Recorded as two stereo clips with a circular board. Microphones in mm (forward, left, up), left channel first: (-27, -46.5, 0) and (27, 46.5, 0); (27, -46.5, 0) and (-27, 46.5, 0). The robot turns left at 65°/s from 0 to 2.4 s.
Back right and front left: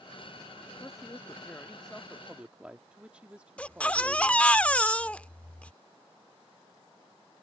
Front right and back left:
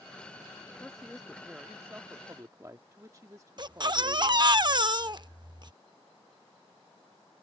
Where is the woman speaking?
130° right; by 4.6 s 125° left.